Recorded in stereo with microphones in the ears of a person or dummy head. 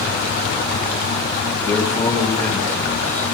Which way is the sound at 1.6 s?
15° left (ahead or behind).